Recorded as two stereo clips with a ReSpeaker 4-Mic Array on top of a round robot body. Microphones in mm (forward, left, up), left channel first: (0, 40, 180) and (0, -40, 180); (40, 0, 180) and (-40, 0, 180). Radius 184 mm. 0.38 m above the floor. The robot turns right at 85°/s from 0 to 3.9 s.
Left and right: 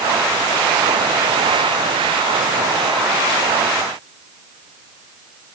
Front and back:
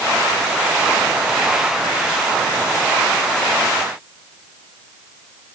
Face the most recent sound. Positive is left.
No sound to turn to.